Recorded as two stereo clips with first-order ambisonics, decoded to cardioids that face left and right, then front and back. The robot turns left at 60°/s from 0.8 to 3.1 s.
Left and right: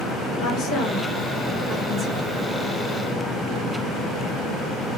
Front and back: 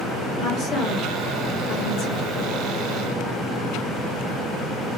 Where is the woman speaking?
50° left, 1.5 m; by 2.3 s 40° right, 1.5 m.